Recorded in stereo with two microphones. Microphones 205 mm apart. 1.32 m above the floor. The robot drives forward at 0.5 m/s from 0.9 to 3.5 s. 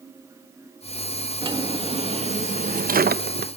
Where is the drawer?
25° right (ahead or behind), 1.3 m; by 3.5 s 55° right (ahead or behind), 0.6 m.